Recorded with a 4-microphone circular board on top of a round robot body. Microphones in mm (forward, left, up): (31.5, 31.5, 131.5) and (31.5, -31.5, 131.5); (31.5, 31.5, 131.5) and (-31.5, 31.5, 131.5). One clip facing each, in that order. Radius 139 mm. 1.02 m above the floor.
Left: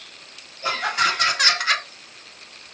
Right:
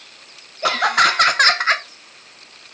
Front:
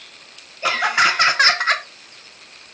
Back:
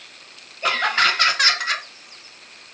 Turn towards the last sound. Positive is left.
turn(degrees=-30)